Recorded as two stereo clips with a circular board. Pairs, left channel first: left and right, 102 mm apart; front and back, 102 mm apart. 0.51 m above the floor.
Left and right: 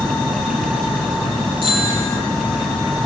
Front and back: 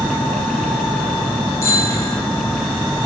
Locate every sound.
1.6 s a bicycle bell: 65° right, 8.5 m